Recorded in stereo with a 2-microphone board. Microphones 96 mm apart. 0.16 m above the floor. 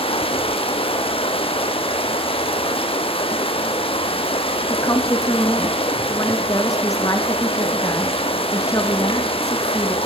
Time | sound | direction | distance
0.0 | running water | 80° left | 2 m
4.7 | a woman speaking | 35° left (ahead or behind) | 2 m